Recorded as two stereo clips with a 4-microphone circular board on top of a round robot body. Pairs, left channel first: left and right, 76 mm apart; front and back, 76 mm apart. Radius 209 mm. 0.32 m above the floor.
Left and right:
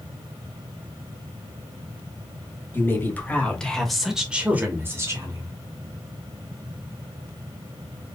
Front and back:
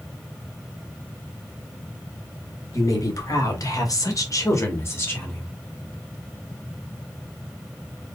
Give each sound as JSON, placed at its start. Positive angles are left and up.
{"t": 2.7, "sound": "a woman speaking", "azimuth_deg": 35, "distance_m": 2.5}